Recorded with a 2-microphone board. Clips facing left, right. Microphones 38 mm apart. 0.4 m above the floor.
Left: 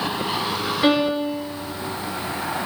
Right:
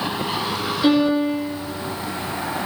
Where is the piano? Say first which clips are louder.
Right 3 dB; 45° left (ahead or behind), 1.1 m.